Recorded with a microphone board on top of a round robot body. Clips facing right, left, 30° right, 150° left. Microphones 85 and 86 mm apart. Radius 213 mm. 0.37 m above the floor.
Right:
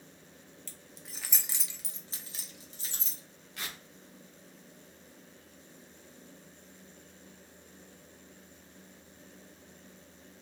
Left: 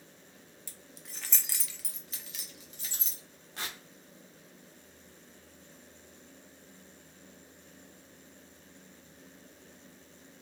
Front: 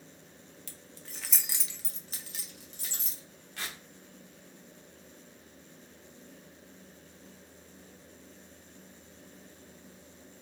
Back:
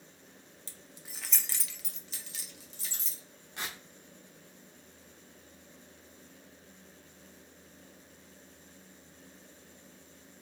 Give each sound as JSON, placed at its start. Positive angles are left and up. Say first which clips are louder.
{"t": 0.7, "sound": "keys jangling", "louder": "right 1 dB, front 2 dB", "azimuth_deg": 155, "distance_m": 0.8}
{"t": 3.6, "sound": "tearing paper", "louder": "left 2 dB, back 1 dB", "azimuth_deg": 110, "distance_m": 1.2}